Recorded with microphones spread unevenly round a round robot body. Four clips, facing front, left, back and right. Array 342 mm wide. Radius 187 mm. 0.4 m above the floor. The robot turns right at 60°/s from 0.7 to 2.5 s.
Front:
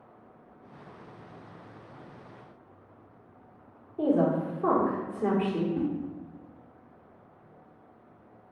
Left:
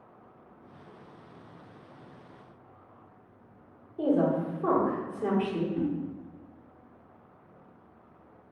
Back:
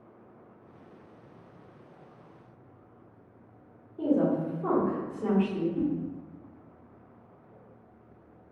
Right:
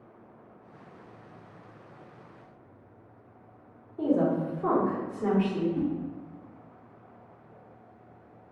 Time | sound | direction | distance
4.0 | a woman speaking | 30° right | 1.4 m
5.8 | a whoosh | 30° right | 1.0 m